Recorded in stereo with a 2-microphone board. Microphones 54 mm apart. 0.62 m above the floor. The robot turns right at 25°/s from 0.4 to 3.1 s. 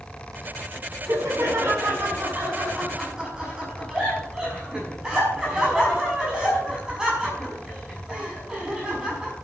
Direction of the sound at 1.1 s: 65° right (ahead or behind).